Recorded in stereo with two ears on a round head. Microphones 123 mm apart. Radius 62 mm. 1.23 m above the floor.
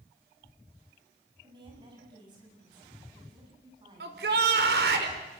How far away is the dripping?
No dripping in this recording.